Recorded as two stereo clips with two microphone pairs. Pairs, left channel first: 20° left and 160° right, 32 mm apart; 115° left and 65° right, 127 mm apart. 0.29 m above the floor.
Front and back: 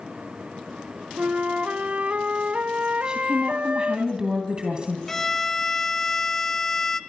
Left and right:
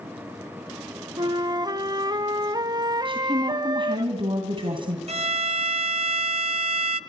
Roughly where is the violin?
Ahead right.